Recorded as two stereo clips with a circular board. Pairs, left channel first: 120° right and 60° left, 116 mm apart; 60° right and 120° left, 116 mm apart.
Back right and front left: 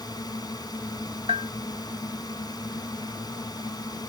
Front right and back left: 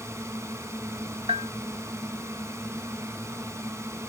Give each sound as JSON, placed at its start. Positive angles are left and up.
{"t": 0.0, "sound": "a drone", "azimuth_deg": -175}
{"t": 1.3, "sound": "a bell", "azimuth_deg": 90}